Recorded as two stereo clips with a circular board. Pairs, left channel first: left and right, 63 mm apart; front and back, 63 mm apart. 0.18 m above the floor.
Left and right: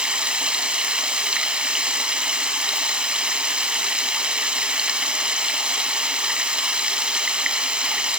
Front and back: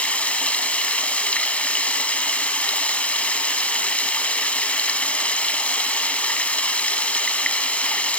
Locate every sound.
0.0 s running water: 40° right, 0.8 m